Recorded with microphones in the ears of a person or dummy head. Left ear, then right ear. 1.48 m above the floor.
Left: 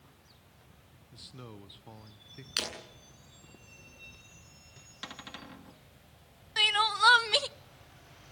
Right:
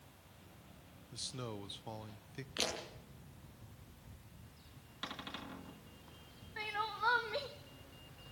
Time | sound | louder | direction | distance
1.1 | a man speaking | right 5 dB | 10° right (ahead or behind) | 0.6 m
2.6 | breaking glass | left 4 dB | 70° left (ahead or behind) | 10 m
5.0 | a cupboard door | left 1 dB | 20° left (ahead or behind) | 1.5 m
6.6 | crying | left 14 dB | 55° left (ahead or behind) | 0.5 m